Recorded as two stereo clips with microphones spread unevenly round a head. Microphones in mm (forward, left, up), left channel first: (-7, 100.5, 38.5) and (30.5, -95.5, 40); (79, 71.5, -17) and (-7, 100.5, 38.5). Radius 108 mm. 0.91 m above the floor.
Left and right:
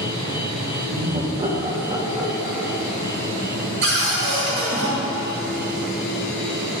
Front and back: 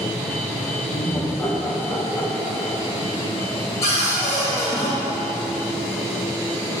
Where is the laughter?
50° right, 1.1 m; by 2.9 s 10° left, 1.8 m.